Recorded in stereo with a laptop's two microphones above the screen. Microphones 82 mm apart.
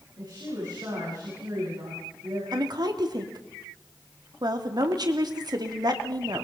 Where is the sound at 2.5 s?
60° right (ahead or behind), 2.5 m.